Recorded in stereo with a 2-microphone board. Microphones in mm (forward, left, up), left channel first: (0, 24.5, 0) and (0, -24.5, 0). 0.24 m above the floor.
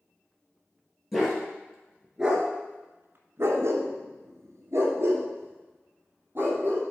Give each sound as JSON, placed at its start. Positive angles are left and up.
{"t": 1.1, "sound": "a dog barking", "side_deg": 0, "distance_m": 2.5}